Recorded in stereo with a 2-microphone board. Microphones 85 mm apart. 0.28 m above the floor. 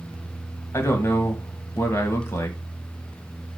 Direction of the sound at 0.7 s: 30° left (ahead or behind).